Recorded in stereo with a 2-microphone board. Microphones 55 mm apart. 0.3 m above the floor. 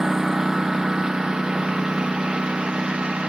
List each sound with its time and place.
0.0 s a lawn mower: 10° right (ahead or behind); by 3.3 s 15° right (ahead or behind)